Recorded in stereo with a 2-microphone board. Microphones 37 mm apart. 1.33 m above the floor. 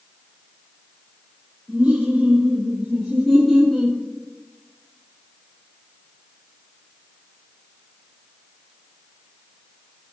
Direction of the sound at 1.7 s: 15° right (ahead or behind).